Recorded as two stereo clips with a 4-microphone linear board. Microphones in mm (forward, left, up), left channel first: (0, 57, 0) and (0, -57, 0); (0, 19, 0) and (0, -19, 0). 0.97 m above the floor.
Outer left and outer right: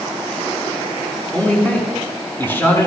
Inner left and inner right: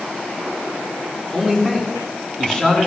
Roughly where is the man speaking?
Centre.